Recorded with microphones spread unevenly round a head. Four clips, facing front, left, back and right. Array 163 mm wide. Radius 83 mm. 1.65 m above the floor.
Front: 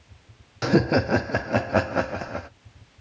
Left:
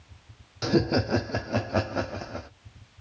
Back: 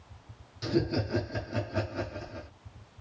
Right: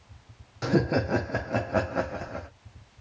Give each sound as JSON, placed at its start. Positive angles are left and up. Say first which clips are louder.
{"t": 0.6, "sound": "laughter", "louder": "left 1 dB, front 9 dB", "azimuth_deg": 5, "distance_m": 0.6}